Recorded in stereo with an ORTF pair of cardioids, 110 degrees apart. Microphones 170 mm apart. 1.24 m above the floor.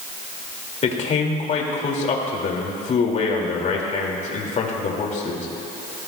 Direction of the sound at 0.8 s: 45° left.